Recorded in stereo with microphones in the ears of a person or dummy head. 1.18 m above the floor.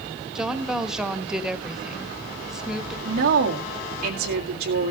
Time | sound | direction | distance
0.3 | a woman speaking | centre (ahead or behind) | 1.3 m
3.0 | a woman speaking | 45° right (ahead or behind) | 1.8 m